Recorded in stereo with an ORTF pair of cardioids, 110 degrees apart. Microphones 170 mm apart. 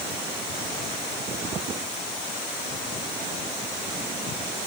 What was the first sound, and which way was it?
Only background noise.